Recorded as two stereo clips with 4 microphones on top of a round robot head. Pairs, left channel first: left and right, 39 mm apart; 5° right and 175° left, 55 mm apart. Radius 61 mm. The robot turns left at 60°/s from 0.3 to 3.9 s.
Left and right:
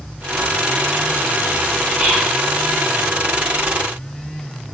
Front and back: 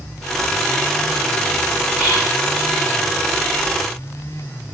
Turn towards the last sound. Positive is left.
turn(degrees=140)